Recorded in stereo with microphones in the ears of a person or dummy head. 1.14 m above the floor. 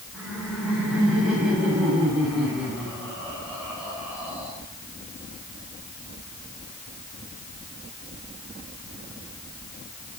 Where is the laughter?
5° right (ahead or behind), 9.5 m.